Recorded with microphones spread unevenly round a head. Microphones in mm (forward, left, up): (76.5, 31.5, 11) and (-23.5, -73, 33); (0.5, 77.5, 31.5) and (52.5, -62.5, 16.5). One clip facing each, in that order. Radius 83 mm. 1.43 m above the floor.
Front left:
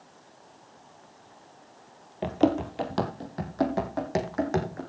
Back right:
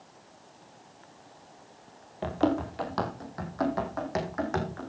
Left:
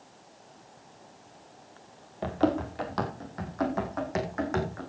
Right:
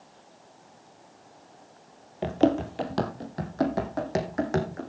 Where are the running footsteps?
20° right, 1.5 m; by 4.8 s 15° right, 4 m.